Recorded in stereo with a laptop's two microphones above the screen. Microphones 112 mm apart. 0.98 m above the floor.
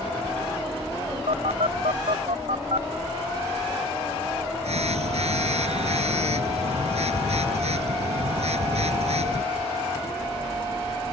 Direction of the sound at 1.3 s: 75° right (ahead or behind).